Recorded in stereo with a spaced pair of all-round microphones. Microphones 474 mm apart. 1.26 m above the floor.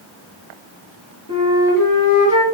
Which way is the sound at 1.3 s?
40° left (ahead or behind).